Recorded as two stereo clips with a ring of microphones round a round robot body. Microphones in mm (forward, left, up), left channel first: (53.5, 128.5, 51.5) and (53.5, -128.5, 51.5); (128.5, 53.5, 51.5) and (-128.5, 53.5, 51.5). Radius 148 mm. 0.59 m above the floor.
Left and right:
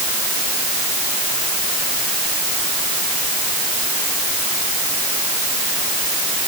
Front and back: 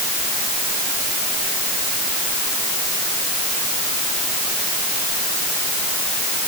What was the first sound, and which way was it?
Only background noise.